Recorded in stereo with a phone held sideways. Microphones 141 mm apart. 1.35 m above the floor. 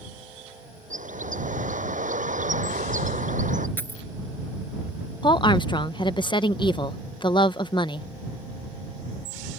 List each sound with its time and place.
0.9 s a bird: 65° right (ahead or behind)
3.8 s a dropped coin: 15° left (ahead or behind)
5.2 s a woman speaking: 35° left (ahead or behind)